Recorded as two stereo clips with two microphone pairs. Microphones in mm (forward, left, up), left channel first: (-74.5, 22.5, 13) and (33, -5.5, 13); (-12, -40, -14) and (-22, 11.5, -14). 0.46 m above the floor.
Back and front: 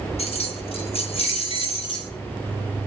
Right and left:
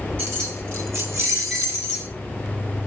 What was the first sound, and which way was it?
Keys jangling, 140° left.